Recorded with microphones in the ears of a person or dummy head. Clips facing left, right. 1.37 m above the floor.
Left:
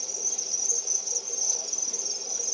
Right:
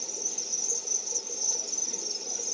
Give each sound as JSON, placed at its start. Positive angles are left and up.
{"t": 0.0, "sound": "an insect", "side_deg": -10, "distance_m": 1.4}